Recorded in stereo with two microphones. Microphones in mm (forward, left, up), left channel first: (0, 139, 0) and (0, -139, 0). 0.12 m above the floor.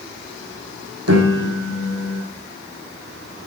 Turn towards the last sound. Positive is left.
turn(degrees=-60)  # may be behind; listen again after turning